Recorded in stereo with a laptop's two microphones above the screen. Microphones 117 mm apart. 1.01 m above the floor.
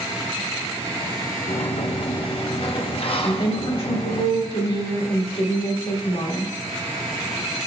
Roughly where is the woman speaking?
Left.